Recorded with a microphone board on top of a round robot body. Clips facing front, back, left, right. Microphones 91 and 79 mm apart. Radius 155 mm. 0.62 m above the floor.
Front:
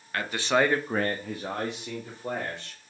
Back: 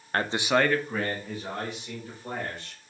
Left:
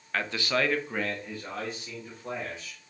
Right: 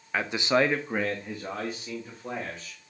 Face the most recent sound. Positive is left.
turn(degrees=-10)